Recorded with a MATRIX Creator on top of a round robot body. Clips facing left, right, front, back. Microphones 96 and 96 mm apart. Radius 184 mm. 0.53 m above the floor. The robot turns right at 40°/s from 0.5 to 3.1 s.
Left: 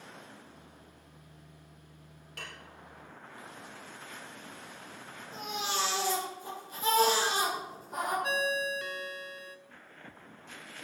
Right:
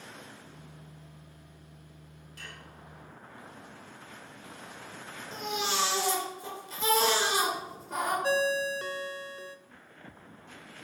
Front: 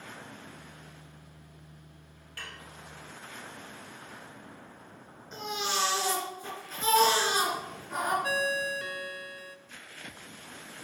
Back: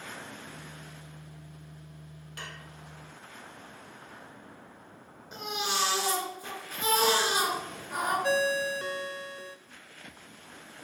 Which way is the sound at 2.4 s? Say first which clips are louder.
Left 2 dB, back 1 dB; 110° left.